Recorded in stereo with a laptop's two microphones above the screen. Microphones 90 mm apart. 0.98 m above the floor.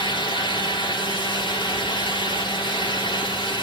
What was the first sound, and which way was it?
A fan, 65° left (ahead or behind).